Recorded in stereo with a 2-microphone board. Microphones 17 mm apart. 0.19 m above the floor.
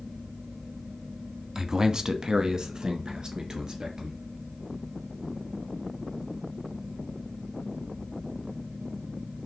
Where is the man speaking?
25° right (ahead or behind), 1.1 m; by 4.2 s 50° right (ahead or behind), 3 m.